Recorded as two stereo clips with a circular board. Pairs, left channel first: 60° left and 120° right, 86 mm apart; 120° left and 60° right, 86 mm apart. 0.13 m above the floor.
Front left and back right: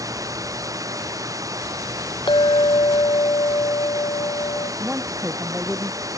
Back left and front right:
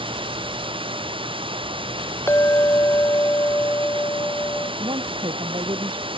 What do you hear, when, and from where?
0.0 s running water: 70° right
2.3 s a clink: 60° left
4.8 s a woman speaking: 45° right